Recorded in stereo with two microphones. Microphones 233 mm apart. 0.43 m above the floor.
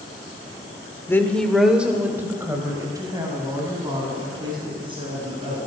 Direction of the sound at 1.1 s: 10° left (ahead or behind).